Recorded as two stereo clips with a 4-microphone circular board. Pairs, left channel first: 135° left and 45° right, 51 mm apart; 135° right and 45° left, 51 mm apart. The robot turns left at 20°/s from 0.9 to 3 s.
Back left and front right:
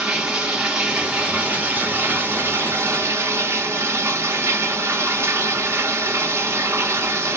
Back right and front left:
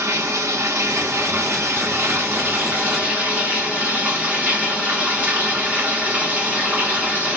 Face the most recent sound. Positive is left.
turn(degrees=-15)